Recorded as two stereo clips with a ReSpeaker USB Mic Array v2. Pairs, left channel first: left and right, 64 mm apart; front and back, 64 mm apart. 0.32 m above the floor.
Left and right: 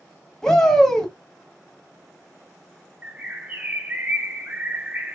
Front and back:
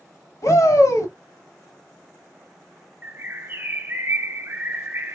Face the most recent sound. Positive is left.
turn(degrees=-145)